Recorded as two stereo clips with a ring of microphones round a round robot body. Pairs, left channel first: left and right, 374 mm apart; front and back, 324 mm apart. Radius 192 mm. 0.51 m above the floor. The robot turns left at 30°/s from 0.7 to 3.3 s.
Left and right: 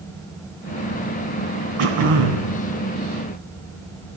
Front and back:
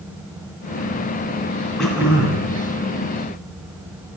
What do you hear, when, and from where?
1.8 s throat clearing: 85° right, 2 m; by 2.5 s 110° right, 2 m